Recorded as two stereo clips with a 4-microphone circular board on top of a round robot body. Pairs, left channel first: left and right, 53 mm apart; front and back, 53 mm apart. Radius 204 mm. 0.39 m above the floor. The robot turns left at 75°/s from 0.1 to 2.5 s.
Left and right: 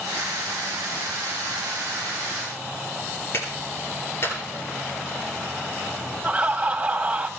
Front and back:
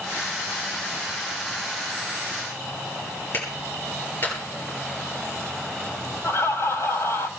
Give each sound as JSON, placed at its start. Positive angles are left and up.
{"t": 3.3, "sound": "a clap", "azimuth_deg": 50, "distance_m": 10.0}
{"t": 6.2, "sound": "laughter", "azimuth_deg": -25, "distance_m": 2.5}